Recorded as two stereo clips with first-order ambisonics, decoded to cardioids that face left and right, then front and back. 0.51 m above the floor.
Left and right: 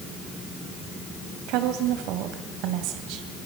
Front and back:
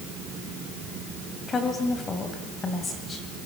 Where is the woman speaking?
70° right, 2.5 m.